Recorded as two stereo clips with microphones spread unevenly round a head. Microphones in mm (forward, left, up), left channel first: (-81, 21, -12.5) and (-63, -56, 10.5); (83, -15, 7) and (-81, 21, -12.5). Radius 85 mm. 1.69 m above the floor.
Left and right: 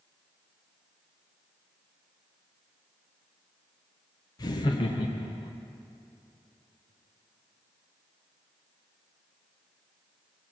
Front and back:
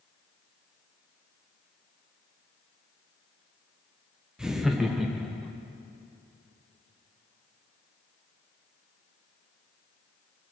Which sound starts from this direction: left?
Laughter, at 4.4 s.